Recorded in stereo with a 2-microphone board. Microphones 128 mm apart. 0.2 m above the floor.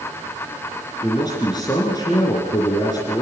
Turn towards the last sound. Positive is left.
turn(degrees=30)  # may be behind; listen again after turning